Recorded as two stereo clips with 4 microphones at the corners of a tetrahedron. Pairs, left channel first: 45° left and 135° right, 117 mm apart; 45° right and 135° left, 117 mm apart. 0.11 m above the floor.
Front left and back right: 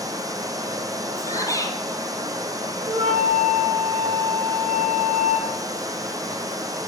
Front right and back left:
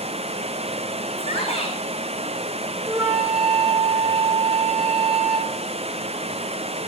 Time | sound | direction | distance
0.0 | running water | 165° left | 2 m
1.2 | a shout | 15° right | 4.5 m
2.9 | a flute | 150° right | 9.5 m